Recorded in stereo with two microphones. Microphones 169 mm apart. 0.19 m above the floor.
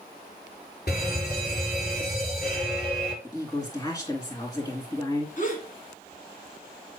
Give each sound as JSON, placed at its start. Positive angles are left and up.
{"t": 0.9, "sound": "a fire alarm", "side_deg": 65, "distance_m": 5.5}
{"t": 3.2, "sound": "a woman speaking", "side_deg": 20, "distance_m": 2.5}
{"t": 5.4, "sound": "a gasp", "side_deg": 50, "distance_m": 2.0}